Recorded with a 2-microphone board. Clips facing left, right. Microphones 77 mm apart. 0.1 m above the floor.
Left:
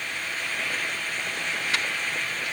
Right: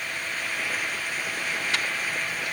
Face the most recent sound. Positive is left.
No sound to turn to.